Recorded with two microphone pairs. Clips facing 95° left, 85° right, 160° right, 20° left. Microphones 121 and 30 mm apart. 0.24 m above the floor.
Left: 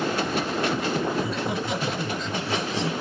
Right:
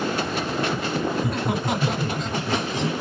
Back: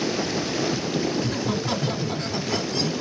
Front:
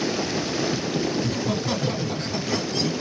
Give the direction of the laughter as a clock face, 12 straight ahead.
3 o'clock.